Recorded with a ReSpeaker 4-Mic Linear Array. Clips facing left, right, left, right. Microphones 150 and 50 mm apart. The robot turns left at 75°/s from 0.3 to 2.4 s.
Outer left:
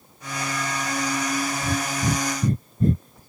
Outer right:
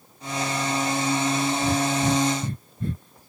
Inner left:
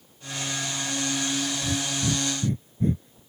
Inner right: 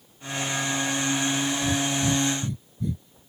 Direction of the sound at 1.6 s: 15° right (ahead or behind).